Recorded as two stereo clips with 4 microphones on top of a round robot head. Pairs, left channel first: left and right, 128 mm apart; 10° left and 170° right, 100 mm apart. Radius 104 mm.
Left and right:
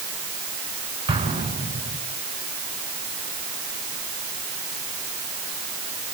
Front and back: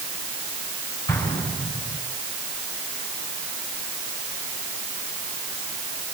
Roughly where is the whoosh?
I don't hear a whoosh.